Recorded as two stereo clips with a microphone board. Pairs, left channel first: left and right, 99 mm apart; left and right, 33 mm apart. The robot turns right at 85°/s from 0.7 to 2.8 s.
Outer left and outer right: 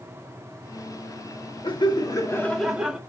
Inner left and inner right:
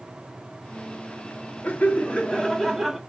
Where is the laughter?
90° left, 0.7 m; by 3.0 s 170° right, 0.7 m.